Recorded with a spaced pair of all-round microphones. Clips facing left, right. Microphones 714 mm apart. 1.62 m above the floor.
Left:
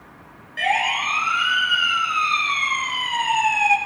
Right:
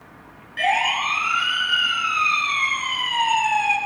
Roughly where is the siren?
Right.